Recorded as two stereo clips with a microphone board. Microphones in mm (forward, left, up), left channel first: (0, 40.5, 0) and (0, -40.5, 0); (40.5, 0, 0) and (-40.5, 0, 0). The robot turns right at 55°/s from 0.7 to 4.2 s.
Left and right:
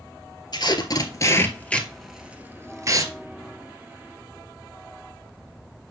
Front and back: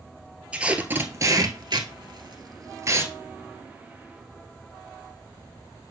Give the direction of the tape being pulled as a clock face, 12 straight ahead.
8 o'clock.